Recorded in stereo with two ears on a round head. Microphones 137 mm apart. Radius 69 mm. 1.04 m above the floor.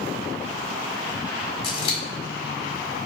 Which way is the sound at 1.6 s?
30° left (ahead or behind).